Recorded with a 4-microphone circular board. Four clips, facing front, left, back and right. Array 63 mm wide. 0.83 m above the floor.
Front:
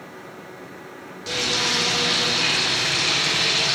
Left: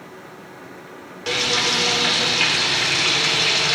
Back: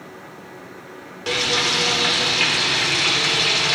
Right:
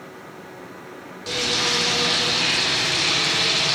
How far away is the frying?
About 2.5 m.